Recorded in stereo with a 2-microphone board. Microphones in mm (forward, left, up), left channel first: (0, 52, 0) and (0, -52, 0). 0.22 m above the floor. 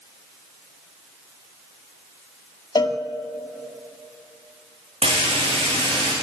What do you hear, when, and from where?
2.8 s a cowbell: 45° left (ahead or behind), 0.6 m
5.0 s frying: 75° right (ahead or behind), 5 m